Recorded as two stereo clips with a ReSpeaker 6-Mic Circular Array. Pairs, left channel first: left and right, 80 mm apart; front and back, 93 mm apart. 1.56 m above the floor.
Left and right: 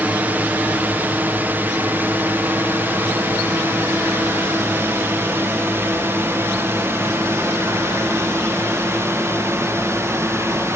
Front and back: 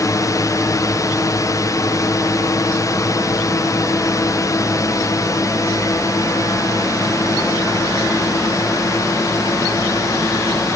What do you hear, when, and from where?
0.0 s a drone: 30° right; by 10.8 s 45° right